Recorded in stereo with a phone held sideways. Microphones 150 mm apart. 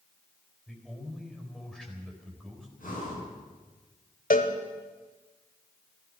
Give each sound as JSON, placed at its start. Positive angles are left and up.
{"t": 0.7, "sound": "a man speaking", "side_deg": 5, "distance_m": 4.0}
{"t": 2.8, "sound": "breathing", "side_deg": 70, "distance_m": 7.5}
{"t": 4.3, "sound": "a cowbell", "side_deg": 65, "distance_m": 1.3}